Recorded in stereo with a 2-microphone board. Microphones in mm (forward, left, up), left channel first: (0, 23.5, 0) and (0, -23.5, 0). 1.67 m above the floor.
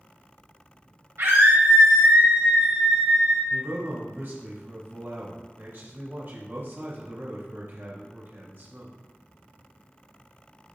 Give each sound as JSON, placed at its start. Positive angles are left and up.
{"t": 1.2, "sound": "a scream", "side_deg": -65, "distance_m": 2.5}
{"t": 3.5, "sound": "a man speaking", "side_deg": -50, "distance_m": 3.0}